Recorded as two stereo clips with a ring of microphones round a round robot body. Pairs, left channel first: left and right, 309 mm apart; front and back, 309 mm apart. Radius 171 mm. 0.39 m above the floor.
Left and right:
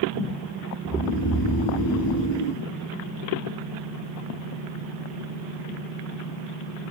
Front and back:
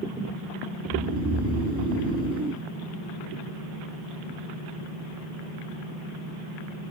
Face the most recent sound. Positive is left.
turn(degrees=105)